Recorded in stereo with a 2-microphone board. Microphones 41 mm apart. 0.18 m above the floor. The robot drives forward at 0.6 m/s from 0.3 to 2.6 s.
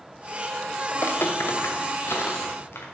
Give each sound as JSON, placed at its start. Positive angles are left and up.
{"t": 0.9, "sound": "footsteps", "side_deg": 55, "distance_m": 1.2}